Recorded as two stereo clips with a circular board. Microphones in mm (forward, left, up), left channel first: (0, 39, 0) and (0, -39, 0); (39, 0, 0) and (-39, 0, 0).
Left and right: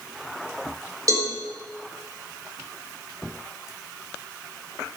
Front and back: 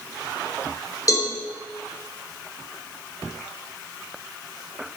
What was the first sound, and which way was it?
A cowbell, 45° right.